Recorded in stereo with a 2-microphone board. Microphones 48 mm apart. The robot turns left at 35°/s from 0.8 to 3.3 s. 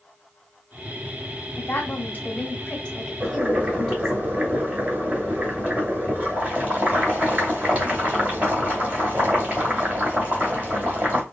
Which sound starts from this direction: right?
Boiling, at 3.2 s.